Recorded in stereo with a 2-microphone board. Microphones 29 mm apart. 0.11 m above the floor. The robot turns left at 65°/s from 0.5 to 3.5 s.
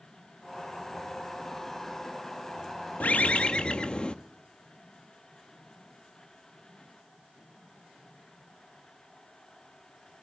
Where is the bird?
70° left, 0.6 m; by 4.2 s 40° left, 0.6 m.